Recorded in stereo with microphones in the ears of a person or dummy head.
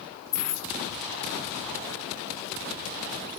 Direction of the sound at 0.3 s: 15° left (ahead or behind).